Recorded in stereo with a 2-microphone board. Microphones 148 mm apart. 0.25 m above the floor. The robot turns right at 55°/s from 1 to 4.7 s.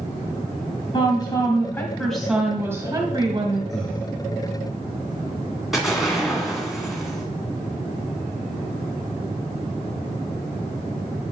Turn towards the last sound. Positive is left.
turn(degrees=0)  # may be behind; listen again after turning